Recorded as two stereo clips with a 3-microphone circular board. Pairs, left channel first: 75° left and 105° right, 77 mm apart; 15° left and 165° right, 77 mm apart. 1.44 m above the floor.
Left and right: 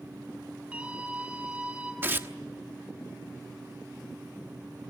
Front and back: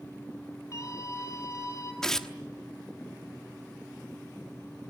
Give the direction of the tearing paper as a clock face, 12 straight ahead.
2 o'clock.